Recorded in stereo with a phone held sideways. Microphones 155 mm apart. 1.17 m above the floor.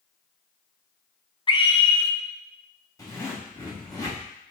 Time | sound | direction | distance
1.5 | a scream | 30° left (ahead or behind) | 0.6 m
3.0 | a zipper | 20° left (ahead or behind) | 1.3 m